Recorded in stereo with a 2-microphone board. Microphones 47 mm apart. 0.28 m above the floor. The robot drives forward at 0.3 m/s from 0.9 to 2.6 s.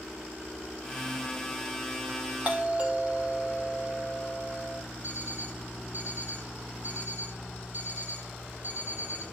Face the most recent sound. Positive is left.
turn(degrees=-45)  # may be behind; listen again after turning